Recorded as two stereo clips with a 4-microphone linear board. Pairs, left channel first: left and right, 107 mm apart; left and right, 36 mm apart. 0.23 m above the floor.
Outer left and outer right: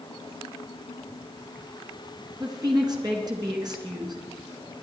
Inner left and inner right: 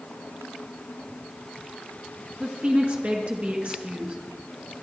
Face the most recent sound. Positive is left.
turn(degrees=-40)  # may be behind; listen again after turning